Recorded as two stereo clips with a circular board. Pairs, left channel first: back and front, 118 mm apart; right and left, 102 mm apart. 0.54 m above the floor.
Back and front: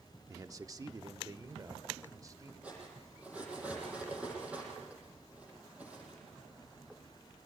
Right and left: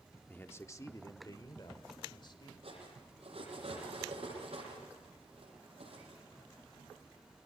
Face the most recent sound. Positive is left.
turn(degrees=80)